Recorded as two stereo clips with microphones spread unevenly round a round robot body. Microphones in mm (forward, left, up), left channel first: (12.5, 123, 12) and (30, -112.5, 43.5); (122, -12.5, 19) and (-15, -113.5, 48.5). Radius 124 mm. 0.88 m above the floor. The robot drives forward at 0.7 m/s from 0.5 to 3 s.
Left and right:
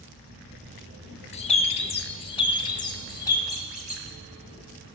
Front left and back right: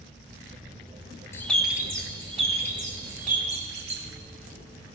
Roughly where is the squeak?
Behind.